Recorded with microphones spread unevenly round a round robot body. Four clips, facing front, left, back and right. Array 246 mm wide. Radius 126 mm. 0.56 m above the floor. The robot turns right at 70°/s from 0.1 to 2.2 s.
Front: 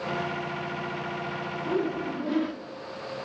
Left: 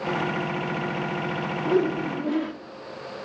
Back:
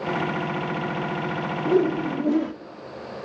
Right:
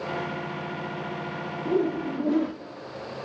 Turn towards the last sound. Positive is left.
turn(degrees=-160)